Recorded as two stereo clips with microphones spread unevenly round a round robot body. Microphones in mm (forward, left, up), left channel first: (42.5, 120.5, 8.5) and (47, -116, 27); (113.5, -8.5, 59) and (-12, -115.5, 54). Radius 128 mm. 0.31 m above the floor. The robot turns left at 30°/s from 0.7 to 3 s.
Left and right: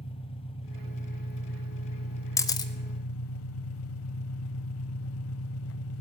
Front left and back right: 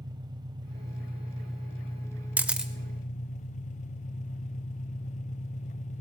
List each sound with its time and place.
0.0 s an engine running: 155° left, 0.7 m; by 6.0 s 85° left, 0.7 m
2.4 s a camera shutter: 150° left, 0.9 m; by 2.7 s 140° left, 0.9 m